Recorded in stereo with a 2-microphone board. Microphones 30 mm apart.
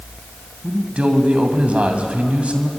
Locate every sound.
0.6 s a man speaking: 45° right (ahead or behind), 2 m